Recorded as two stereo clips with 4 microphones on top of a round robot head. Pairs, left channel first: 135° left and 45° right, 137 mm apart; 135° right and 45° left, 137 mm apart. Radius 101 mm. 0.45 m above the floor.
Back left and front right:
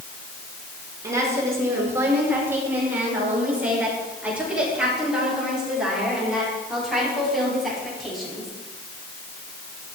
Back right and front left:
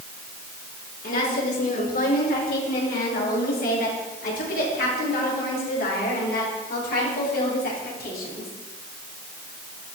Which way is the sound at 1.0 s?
115° right.